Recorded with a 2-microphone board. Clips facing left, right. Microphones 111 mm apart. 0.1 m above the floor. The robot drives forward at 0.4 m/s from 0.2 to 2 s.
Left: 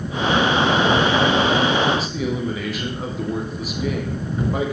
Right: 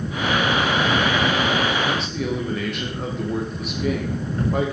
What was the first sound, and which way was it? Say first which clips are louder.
A man speaking: left 2 dB; 5° left (ahead or behind).